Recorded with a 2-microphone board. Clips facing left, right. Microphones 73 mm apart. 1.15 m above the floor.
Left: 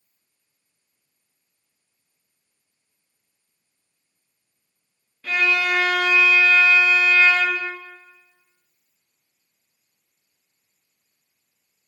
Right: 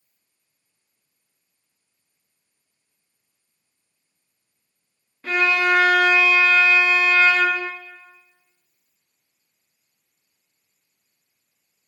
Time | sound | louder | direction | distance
5.2 | a violin | right 2 dB | 30° right (ahead or behind) | 0.5 m